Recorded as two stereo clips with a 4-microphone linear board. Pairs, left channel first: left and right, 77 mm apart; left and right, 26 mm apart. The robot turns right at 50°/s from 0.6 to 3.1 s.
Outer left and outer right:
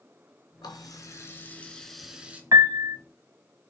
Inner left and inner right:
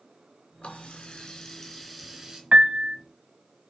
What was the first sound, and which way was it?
A running tap, 110° left.